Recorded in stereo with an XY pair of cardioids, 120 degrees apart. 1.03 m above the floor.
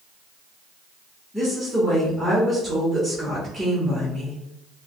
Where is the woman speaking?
5° right, 1.7 m.